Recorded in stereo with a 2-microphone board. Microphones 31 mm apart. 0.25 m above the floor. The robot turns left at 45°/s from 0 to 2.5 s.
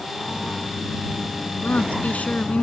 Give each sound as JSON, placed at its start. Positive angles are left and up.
{"t": 1.6, "sound": "a woman speaking", "azimuth_deg": 90}